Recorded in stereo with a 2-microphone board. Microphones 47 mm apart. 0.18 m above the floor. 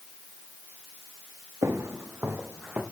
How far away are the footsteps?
About 1.2 m.